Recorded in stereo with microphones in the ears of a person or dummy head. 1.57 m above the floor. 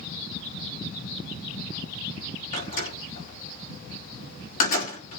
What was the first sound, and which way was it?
A door slam, 50° left (ahead or behind).